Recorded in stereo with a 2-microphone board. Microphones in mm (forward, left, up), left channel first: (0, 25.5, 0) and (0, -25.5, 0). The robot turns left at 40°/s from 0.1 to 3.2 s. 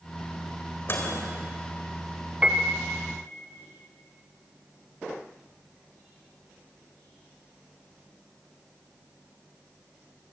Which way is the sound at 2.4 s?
20° right (ahead or behind).